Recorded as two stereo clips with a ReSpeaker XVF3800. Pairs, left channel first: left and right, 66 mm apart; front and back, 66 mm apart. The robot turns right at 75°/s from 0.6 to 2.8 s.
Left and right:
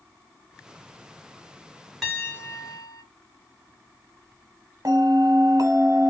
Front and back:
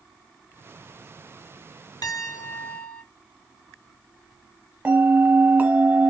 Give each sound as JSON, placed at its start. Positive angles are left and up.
{"t": 2.0, "sound": "a piano", "azimuth_deg": 0, "distance_m": 1.7}
{"t": 4.8, "sound": "a bell", "azimuth_deg": -115, "distance_m": 1.1}